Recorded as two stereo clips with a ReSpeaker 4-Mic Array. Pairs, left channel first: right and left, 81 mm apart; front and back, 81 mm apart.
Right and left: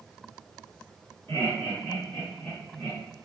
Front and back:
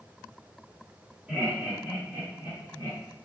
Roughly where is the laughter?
Behind right.